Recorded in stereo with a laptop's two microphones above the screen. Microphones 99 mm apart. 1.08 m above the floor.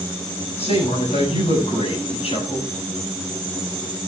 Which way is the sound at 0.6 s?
85° left.